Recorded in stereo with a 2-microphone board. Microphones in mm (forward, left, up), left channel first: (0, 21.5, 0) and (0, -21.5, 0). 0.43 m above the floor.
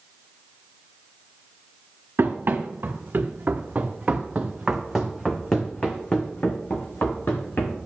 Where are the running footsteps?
55° right (ahead or behind), 2 m; by 7.8 s 55° left (ahead or behind), 2.5 m.